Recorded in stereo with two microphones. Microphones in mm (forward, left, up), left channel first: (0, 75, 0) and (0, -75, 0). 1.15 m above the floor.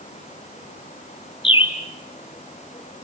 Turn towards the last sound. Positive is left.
turn(degrees=35)  # may be behind; listen again after turning